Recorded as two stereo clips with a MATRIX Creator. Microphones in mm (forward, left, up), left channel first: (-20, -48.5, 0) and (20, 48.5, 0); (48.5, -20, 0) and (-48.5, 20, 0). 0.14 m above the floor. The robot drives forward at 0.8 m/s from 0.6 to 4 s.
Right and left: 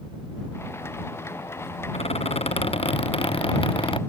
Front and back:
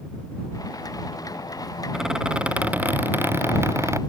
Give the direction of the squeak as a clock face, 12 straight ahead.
4 o'clock.